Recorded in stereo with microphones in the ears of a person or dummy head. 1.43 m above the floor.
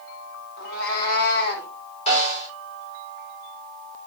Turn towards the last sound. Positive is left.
turn(degrees=35)  # may be behind; listen again after turning